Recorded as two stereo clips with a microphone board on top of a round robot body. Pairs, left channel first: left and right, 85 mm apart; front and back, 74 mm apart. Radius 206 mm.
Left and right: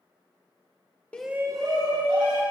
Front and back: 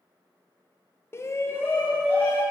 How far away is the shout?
About 0.6 m.